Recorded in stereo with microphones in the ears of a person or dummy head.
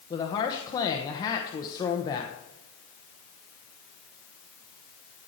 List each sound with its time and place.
0.1 s a woman speaking: 20° left (ahead or behind), 1.0 m